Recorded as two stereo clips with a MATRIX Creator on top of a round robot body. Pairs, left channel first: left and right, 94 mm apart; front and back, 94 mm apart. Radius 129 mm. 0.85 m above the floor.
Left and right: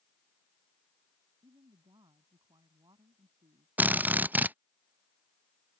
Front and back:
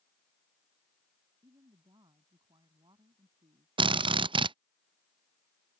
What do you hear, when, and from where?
1.4 s a woman speaking: 135° right
3.8 s a drill: 160° right